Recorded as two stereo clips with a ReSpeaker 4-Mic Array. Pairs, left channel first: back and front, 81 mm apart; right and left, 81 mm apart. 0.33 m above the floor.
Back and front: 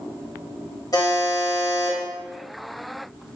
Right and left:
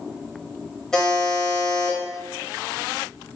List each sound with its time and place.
0.9 s a buzzer: 170° right, 0.8 m